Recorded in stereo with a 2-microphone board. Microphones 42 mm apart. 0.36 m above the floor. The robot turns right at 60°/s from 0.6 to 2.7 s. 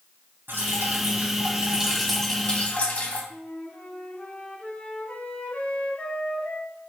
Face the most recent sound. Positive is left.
turn(degrees=30)  # may be behind; listen again after turning